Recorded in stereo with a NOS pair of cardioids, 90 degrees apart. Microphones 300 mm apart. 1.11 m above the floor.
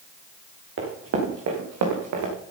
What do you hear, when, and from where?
0.8 s running footsteps: 45° right, 5 m; by 2.3 s 70° right, 5 m